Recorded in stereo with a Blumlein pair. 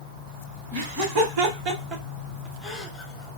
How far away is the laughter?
About 1.6 m.